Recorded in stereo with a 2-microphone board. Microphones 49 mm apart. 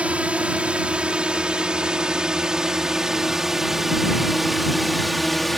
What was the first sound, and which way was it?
A drone, 25° right (ahead or behind).